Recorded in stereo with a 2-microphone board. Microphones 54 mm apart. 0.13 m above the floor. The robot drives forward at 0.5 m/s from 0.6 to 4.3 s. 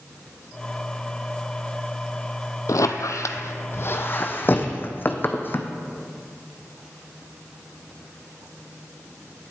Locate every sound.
2.7 s a squeak: 80° left, 0.6 m; by 5.7 s 35° left (ahead or behind), 1.0 m